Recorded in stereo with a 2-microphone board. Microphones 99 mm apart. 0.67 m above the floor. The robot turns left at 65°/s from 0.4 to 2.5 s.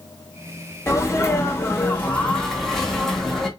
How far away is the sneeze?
About 1.2 m.